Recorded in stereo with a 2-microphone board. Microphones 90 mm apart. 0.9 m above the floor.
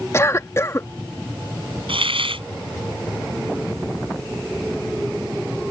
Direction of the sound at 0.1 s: 30° left (ahead or behind).